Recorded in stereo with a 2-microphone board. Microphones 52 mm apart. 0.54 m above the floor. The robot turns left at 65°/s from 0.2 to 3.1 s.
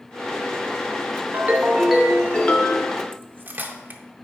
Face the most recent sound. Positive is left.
turn(degrees=-40)  # may be behind; listen again after turning